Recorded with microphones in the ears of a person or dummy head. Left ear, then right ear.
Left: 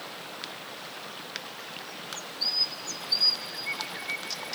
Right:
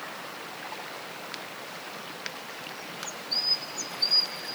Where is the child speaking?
I don't hear a child speaking.